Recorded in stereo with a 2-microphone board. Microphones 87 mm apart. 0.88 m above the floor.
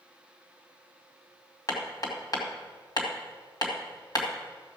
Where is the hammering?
45° left (ahead or behind), 2 m.